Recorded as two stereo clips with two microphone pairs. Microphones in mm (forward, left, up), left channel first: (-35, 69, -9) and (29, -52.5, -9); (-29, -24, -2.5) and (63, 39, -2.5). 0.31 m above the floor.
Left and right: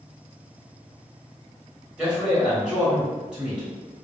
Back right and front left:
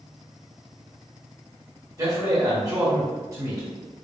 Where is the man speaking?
15° left, 1.7 m.